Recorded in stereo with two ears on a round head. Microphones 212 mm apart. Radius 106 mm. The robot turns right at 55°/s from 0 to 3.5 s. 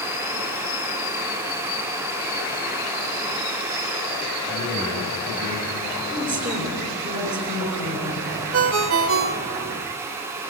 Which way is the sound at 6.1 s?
30° right (ahead or behind).